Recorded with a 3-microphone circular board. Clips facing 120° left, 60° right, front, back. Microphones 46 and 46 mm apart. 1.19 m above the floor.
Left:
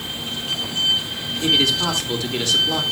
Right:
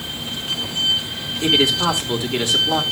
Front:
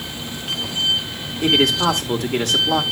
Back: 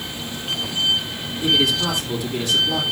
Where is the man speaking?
5° left, 2.5 m.